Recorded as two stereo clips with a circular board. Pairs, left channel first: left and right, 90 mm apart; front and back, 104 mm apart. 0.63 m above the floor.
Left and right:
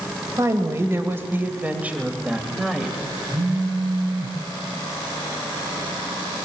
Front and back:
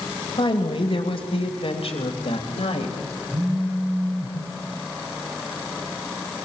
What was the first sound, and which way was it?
A woman speaking, 35° right.